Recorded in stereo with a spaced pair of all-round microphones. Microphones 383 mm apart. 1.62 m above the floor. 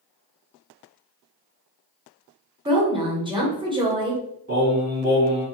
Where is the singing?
20° right (ahead or behind), 1.6 m.